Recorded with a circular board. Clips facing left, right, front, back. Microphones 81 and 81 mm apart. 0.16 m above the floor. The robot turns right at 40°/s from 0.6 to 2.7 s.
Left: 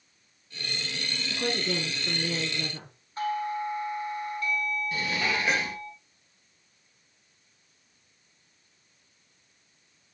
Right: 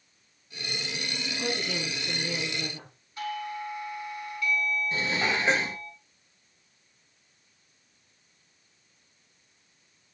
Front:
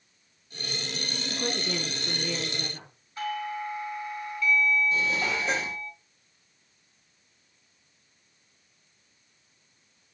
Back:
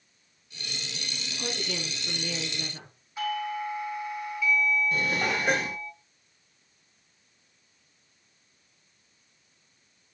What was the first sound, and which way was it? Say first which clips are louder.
A woman speaking: left 3 dB, front 3 dB; 40° left.